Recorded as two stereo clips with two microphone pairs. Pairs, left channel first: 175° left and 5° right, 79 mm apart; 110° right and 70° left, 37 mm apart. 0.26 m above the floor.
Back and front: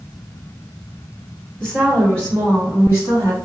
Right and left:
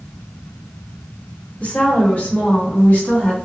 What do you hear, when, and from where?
1.6 s a woman speaking: 105° right, 1.8 m; by 3.4 s 135° right, 2.5 m